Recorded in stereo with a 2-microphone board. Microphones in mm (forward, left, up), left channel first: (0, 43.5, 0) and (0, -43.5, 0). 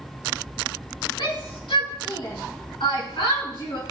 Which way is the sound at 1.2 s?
75° left (ahead or behind).